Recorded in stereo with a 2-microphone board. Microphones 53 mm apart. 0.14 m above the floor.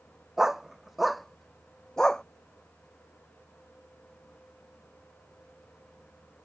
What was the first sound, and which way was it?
A dog barking, 5° right (ahead or behind).